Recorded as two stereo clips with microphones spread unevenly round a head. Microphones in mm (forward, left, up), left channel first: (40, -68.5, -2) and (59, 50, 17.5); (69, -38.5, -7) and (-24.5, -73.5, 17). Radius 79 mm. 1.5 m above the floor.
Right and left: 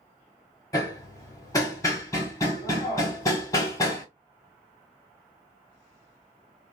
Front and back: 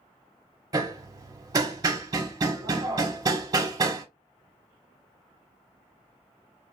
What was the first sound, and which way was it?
Hammering, 170° right.